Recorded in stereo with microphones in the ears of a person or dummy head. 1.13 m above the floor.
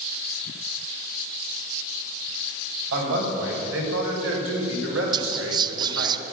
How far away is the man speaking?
About 6.5 m.